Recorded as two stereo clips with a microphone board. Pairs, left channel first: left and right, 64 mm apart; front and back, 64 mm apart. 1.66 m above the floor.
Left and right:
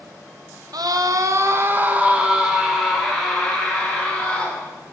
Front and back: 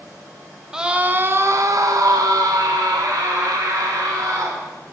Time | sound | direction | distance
0.7 | a scream | 100° right | 1.0 m